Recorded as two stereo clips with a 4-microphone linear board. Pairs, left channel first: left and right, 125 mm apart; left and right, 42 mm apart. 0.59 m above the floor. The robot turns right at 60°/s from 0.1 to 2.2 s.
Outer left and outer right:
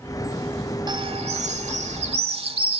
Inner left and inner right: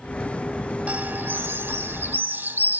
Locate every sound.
0.9 s a bird: 140° right, 0.9 m; by 2.8 s 60° right, 0.9 m